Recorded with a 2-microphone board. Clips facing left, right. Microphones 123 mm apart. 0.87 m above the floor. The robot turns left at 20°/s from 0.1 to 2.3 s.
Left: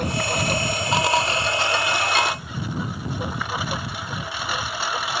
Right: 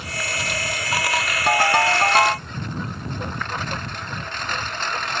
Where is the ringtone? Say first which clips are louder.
Right 5 dB; 60° right (ahead or behind); by 2.5 s 45° right (ahead or behind).